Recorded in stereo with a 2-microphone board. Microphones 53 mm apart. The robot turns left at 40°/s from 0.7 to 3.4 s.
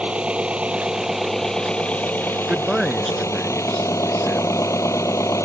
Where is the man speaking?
165° right; by 4.6 s 160° left.